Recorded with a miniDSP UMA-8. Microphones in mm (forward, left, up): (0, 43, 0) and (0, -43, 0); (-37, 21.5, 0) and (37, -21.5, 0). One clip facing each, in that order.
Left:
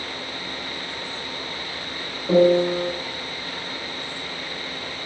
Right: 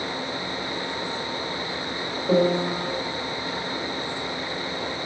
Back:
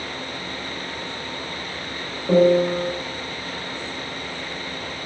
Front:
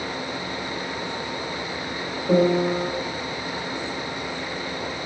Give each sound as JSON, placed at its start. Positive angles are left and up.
{"t": 2.3, "sound": "a piano", "azimuth_deg": -155, "distance_m": 0.8}